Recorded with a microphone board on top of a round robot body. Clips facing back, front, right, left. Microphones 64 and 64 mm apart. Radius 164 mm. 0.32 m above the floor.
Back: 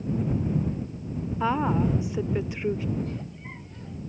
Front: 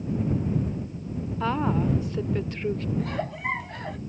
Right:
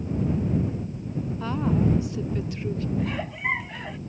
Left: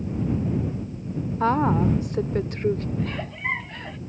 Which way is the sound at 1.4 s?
105° left.